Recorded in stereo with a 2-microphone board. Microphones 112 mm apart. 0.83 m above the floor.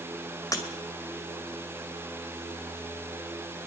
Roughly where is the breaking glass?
Left.